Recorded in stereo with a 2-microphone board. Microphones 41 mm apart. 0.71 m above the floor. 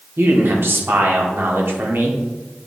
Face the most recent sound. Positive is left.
turn(degrees=-60)  # may be behind; listen again after turning